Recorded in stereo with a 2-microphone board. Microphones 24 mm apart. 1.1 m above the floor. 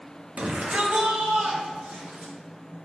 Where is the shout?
65° right (ahead or behind), 1.1 m; by 2.3 s 85° right, 2 m.